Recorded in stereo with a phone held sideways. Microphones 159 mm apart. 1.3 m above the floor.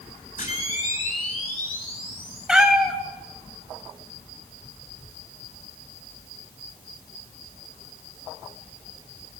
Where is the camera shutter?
65° left (ahead or behind), 10 m.